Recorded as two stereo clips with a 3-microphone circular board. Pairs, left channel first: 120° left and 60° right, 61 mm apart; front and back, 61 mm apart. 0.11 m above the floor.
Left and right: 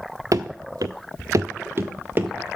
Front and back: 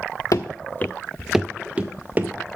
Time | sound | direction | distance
0.3 | running footsteps | 25° right | 0.6 m